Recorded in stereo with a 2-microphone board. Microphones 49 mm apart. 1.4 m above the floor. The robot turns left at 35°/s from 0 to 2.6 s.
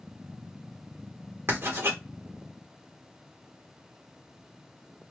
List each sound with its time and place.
1.5 s writing: 50° right (ahead or behind), 1.2 m; by 2.0 s 65° right (ahead or behind), 1.2 m